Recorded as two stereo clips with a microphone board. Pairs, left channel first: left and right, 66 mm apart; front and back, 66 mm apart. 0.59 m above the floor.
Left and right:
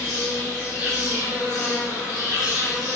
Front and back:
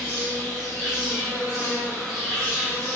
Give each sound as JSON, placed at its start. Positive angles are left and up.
{"t": 0.0, "sound": "an insect", "azimuth_deg": 75, "distance_m": 1.4}